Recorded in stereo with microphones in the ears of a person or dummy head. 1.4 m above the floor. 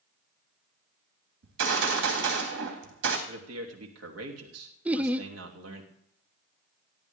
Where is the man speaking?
80° right, 3 m.